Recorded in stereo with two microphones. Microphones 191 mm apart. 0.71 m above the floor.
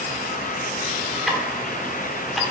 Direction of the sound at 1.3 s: Centre (ahead or behind).